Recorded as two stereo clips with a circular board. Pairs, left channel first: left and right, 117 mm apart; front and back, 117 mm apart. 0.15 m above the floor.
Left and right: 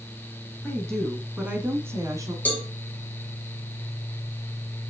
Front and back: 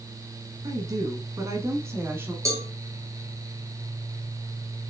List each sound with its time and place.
0.6 s a woman speaking: 160° left, 1.2 m; by 2.4 s 120° right, 1.3 m
2.5 s a cowbell: 155° left, 1.1 m